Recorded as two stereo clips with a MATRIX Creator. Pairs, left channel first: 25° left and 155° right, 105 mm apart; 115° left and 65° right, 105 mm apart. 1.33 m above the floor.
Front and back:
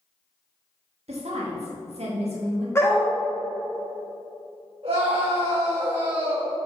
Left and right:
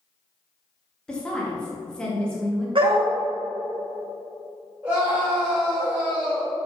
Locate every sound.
1.1 s a woman speaking: 165° right, 1.7 m
2.8 s a dog barking: 40° right, 1.7 m
4.8 s a scream: 140° right, 2.5 m